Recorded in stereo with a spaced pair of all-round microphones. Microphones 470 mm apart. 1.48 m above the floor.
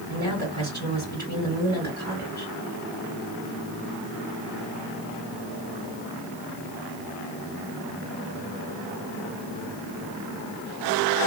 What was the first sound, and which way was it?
A woman speaking, 15° right (ahead or behind).